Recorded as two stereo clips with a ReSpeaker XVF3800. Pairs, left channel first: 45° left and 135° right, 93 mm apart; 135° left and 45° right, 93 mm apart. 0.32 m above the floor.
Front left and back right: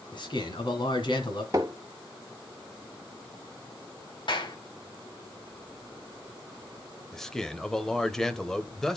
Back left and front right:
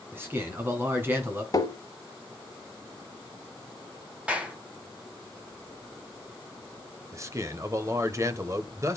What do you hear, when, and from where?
0.1 s a man speaking: 20° left, 3 m
1.5 s tapping: straight behind, 1.6 m
4.3 s a clap: 30° left, 1.9 m
7.1 s a man speaking: 35° right, 1.1 m